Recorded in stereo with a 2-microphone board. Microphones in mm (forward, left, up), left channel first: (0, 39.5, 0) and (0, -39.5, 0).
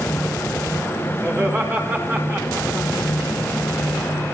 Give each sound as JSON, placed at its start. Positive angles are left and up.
{"t": 1.2, "sound": "laughter", "side_deg": -35, "distance_m": 4.5}